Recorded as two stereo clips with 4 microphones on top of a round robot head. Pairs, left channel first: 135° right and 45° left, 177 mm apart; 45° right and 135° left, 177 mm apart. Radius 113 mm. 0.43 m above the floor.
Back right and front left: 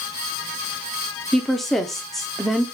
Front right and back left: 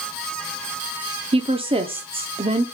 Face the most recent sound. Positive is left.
turn(degrees=135)